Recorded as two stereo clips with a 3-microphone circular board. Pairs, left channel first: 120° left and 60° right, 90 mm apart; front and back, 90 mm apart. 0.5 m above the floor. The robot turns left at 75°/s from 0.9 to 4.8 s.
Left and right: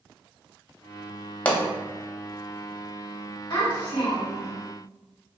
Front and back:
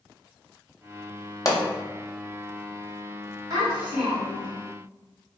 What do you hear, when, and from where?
1.4 s a pop: 50° left, 0.5 m; by 1.6 s 35° left, 0.5 m
3.5 s a child speaking: 140° left, 1.8 m; by 4.5 s 60° left, 1.8 m